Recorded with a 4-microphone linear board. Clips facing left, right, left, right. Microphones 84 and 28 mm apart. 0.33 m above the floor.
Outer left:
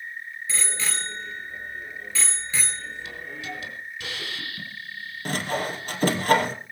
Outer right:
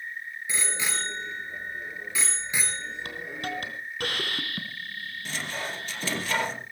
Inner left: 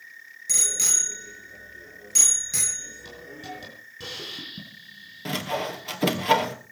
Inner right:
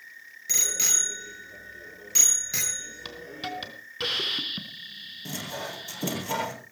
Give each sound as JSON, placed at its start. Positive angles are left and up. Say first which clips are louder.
{"t": 0.5, "sound": "a bicycle bell", "louder": "outer right 1 dB, inner left 1 dB", "side_deg": -15, "distance_m": 4.5}
{"t": 3.0, "sound": "a hiss", "louder": "outer right 2 dB, inner right 3 dB", "side_deg": -55, "distance_m": 3.5}
{"t": 5.2, "sound": "sawing", "louder": "outer left 8 dB, inner left 7 dB", "side_deg": 50, "distance_m": 3.0}